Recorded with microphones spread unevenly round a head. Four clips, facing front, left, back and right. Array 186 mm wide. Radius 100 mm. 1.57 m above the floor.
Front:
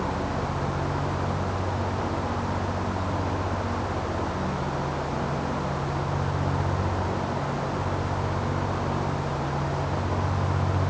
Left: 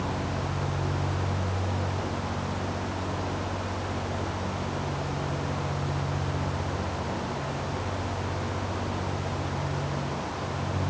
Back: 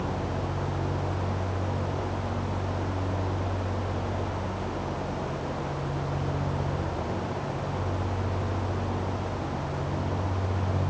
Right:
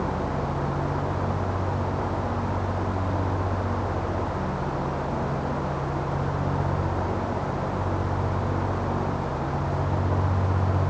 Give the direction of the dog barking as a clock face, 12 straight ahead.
I don't hear a dog barking.